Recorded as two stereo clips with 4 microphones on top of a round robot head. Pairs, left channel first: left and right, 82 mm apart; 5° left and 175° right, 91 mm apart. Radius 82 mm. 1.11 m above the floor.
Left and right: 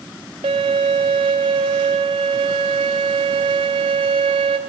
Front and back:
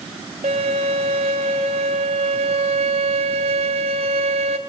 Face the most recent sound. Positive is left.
turn(degrees=-135)